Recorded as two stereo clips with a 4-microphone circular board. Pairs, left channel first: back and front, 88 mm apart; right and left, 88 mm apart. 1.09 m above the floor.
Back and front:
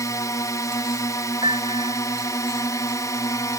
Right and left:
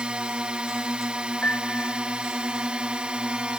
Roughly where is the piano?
Ahead.